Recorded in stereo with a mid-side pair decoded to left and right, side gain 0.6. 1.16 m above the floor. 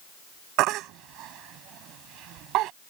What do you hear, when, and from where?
0.6 s a baby crying: 65° right